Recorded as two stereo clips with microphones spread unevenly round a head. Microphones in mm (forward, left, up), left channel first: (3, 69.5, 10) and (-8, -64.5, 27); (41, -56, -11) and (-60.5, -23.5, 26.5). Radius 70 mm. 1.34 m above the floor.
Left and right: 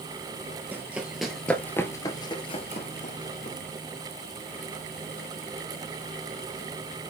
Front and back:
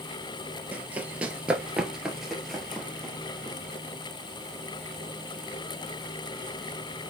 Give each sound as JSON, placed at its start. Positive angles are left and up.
{"t": 0.7, "sound": "running footsteps", "azimuth_deg": -155, "distance_m": 1.7}